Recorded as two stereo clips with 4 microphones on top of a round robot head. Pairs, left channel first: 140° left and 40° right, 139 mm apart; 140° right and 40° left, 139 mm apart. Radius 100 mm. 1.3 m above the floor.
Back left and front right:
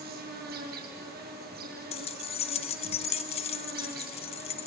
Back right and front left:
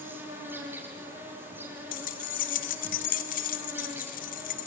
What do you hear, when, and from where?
0.0 s an insect: 35° right, 7.5 m
1.9 s keys jangling: 170° right, 1.3 m